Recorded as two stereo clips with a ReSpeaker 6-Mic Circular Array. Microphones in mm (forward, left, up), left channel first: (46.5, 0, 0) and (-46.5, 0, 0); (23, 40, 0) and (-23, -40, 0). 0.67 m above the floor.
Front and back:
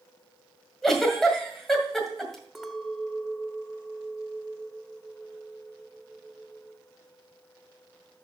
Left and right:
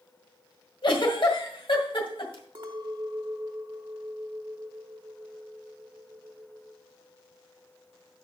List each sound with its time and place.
0.8 s a giggle: 85° left, 1.9 m
2.5 s a clink: 95° right, 1.1 m